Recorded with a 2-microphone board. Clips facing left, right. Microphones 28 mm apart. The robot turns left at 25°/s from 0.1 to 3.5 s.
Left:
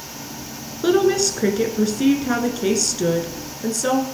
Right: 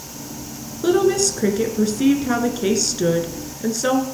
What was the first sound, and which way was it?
A woman speaking, 35° left.